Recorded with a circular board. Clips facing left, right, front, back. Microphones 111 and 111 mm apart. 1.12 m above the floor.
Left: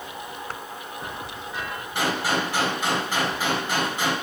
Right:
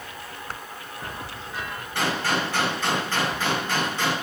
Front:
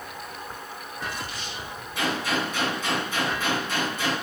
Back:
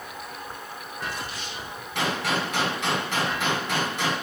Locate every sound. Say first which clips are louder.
1.9 s a gunshot: left 1 dB, even; 170° left, 4 m